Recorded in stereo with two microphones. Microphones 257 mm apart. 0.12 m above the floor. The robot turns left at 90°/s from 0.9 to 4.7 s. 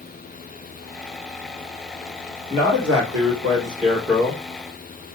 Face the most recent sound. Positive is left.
turn(degrees=135)